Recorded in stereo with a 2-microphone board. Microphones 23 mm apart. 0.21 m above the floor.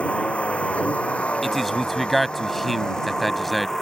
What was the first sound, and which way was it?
A vehicle, 80° left.